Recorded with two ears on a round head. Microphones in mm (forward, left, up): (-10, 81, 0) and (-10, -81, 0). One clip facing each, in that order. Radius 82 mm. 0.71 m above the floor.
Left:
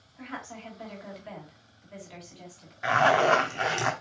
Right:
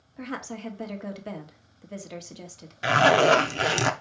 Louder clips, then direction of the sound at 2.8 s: Right 3 dB; 35° right (ahead or behind).